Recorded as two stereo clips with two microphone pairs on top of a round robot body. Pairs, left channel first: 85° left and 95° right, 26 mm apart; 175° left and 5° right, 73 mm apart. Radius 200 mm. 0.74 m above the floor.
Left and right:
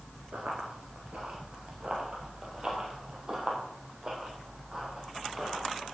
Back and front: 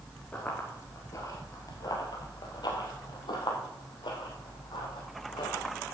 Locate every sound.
0.3 s running footsteps: 115° right, 0.8 m; by 5.8 s 165° right, 3 m